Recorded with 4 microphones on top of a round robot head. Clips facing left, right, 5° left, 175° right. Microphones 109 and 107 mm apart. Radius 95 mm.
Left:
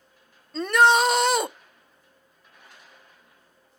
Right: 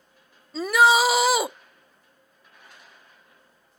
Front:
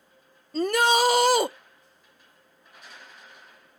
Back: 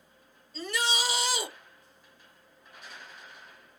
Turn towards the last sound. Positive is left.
turn(degrees=-5)